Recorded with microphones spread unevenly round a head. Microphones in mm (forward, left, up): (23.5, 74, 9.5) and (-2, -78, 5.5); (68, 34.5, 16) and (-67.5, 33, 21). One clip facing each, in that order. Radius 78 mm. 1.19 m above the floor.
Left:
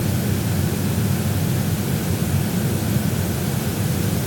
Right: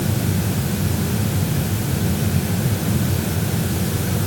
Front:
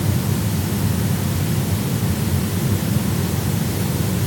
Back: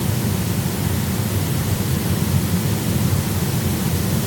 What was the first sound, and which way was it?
Only background noise.